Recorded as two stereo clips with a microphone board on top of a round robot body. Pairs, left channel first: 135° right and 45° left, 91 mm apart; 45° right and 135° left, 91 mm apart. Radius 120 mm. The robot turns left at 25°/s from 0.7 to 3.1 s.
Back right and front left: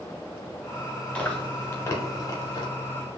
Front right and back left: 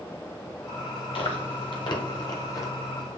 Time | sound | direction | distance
1.1 | chewing | 55° right | 0.9 m